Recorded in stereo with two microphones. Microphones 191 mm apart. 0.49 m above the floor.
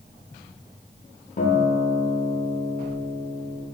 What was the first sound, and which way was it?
A guitar, 50° left (ahead or behind).